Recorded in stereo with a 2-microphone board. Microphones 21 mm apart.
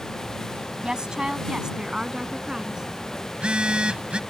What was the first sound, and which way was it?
A woman speaking, 40° right (ahead or behind).